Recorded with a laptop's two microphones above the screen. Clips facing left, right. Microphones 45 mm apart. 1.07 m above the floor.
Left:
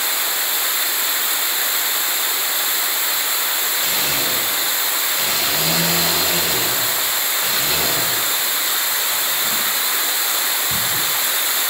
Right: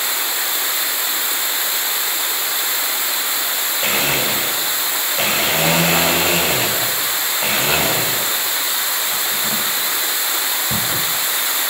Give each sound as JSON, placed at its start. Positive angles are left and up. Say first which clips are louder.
{"t": 3.8, "sound": "a blender", "louder": "right 7 dB", "side_deg": -40, "distance_m": 4.5}